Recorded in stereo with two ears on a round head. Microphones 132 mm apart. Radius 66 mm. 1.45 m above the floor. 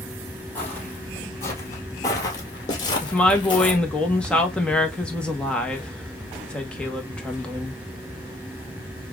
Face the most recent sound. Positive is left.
turn(degrees=5)  # may be behind; listen again after turning